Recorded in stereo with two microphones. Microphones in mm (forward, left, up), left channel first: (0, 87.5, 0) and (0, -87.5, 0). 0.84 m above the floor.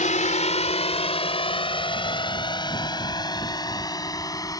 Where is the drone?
45° left (ahead or behind); by 4.6 s 20° left (ahead or behind).